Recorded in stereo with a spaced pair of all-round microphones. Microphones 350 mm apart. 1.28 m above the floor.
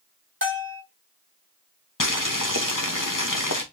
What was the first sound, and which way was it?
A bell, 35° right (ahead or behind).